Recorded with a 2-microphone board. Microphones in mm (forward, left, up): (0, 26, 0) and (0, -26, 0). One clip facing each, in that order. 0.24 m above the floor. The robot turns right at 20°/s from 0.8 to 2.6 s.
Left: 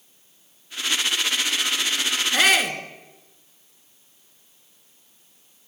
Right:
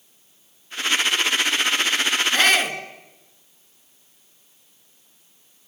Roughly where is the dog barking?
I don't hear a dog barking.